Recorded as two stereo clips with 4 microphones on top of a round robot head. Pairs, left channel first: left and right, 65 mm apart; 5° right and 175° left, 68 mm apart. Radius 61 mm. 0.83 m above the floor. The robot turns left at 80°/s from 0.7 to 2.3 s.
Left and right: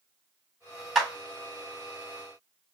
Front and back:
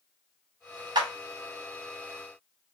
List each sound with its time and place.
0.9 s a clap: 170° right, 2.5 m; by 1.1 s 175° left, 2.5 m